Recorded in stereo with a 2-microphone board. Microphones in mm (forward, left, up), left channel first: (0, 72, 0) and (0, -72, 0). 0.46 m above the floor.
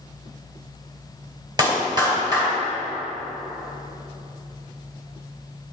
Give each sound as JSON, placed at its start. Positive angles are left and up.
{"t": 1.6, "sound": "a clap", "side_deg": -30, "distance_m": 2.0}